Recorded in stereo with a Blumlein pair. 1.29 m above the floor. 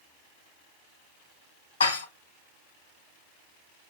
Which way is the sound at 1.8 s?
65° left.